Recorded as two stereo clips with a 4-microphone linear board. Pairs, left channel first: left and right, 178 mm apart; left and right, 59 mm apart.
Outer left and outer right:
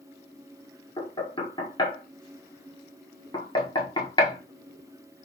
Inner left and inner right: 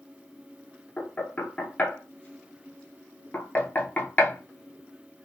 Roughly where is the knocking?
Left.